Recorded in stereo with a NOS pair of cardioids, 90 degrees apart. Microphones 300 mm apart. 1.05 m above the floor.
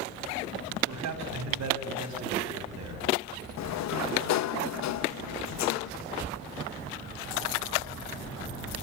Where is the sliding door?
65° left, 0.8 m.